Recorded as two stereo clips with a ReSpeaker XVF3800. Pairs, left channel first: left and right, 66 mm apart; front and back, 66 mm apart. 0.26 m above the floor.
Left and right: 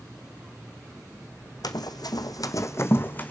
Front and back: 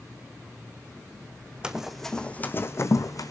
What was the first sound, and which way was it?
Running footsteps, 105° left.